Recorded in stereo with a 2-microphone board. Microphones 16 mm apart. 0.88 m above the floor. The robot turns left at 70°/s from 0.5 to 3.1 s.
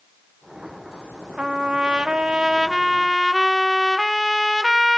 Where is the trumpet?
70° right, 1.1 m; by 5.0 s 165° left, 1.1 m.